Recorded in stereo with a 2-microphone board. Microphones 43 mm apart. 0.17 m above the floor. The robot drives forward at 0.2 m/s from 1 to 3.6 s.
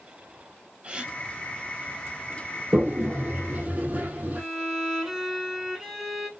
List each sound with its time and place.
0.8 s a gasp: 20° right (ahead or behind), 0.7 m; by 1.1 s 25° right (ahead or behind), 0.7 m
2.7 s a toilet flushing: 45° right (ahead or behind), 0.9 m; by 4.4 s 40° right (ahead or behind), 1.1 m
4.3 s a violin: 5° right (ahead or behind), 0.9 m